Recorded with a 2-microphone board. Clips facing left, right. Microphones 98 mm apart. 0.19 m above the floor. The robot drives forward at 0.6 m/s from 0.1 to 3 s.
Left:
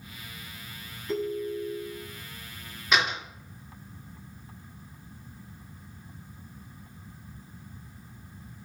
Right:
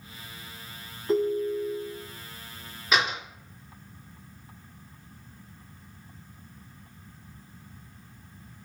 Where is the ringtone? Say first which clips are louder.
Right 5 dB; 35° right (ahead or behind), 0.5 m; by 2.1 s 25° right (ahead or behind), 0.8 m.